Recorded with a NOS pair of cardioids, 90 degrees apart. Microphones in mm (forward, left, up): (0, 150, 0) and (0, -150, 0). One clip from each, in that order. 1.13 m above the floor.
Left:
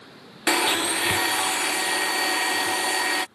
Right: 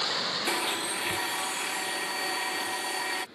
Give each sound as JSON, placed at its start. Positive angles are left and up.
{"t": 0.5, "sound": "a blender", "azimuth_deg": 40}